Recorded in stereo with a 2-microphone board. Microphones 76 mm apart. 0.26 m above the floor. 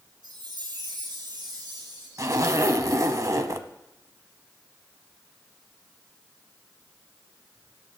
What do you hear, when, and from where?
0.2 s a chime: 70° right (ahead or behind), 6 m
2.2 s a zipper: 50° right (ahead or behind), 0.8 m